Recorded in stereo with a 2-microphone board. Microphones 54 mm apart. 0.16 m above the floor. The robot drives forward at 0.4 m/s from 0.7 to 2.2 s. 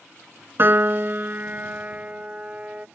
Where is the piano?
50° right (ahead or behind); by 2.9 s 30° right (ahead or behind).